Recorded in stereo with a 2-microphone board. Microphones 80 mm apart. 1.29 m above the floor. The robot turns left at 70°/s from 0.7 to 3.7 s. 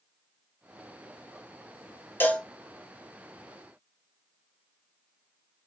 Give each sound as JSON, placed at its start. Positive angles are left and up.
{"t": 2.2, "sound": "a cowbell", "side_deg": 25, "distance_m": 0.9}